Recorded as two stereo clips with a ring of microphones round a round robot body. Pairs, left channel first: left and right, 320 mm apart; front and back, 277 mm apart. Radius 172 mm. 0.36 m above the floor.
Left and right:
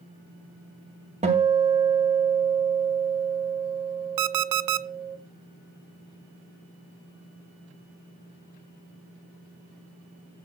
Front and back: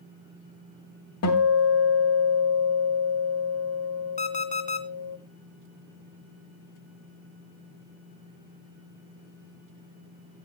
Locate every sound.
1.2 s a guitar: 20° right, 2.5 m
4.2 s an alarm clock: 65° right, 0.6 m